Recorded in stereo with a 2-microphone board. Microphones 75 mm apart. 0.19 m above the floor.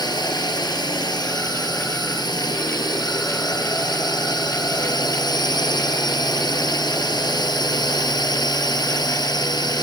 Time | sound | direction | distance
0.0 | a drone | 70° left (ahead or behind) | ?